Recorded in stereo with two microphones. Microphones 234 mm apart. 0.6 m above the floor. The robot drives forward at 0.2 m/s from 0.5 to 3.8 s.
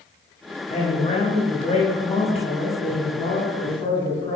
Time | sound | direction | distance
0.7 | a man speaking | 30° left (ahead or behind) | 0.7 m